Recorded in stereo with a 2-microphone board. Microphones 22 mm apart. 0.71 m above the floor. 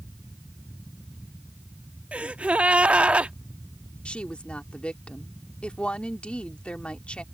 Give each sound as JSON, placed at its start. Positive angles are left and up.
{"t": 2.1, "sound": "a gasp", "side_deg": -70}
{"t": 4.0, "sound": "a woman speaking", "side_deg": 60}